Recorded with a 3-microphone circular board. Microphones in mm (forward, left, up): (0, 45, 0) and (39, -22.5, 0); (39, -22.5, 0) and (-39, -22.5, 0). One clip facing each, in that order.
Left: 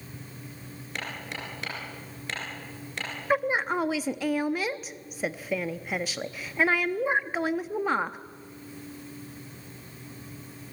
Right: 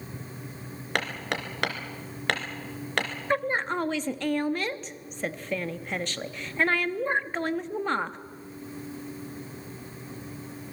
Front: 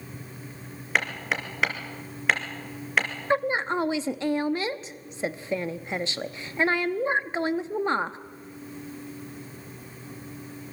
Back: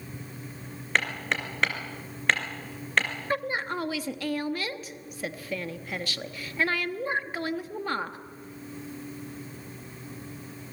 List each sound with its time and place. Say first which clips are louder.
0.9 s hammering: right 6 dB, front 1 dB; 85° right, 3 m
3.3 s a woman speaking: left 2 dB, front 6 dB; 45° left, 0.8 m